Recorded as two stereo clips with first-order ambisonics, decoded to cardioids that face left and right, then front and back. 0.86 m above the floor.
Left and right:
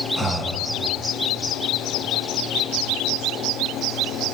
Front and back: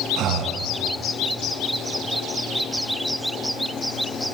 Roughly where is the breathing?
Behind.